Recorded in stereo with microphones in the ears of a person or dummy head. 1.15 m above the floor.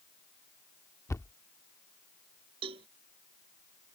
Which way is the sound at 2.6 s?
25° right (ahead or behind).